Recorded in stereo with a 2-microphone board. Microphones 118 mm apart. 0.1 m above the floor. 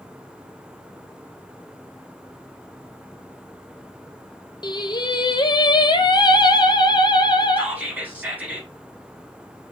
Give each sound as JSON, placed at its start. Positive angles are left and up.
{"t": 4.6, "sound": "singing", "side_deg": 35, "distance_m": 0.6}
{"t": 7.6, "sound": "whispering", "side_deg": -15, "distance_m": 1.8}